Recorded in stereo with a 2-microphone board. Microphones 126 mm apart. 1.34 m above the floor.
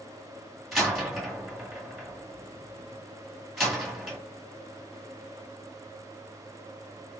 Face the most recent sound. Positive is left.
turn(degrees=0)  # may be behind; listen again after turning